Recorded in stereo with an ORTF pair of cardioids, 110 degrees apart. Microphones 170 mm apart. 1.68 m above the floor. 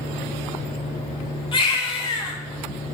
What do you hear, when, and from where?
1.5 s a baby crying: 30° left, 6.5 m